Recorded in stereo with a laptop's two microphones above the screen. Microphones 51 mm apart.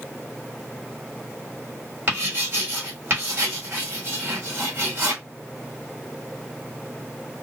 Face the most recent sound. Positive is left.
turn(degrees=-40)  # may be behind; listen again after turning